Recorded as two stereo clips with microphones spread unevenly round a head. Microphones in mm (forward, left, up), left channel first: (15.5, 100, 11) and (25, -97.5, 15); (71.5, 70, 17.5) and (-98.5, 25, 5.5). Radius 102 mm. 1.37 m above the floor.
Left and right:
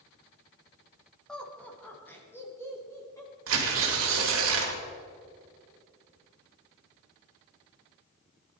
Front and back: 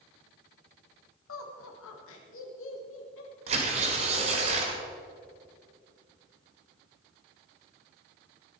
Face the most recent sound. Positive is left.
turn(degrees=-105)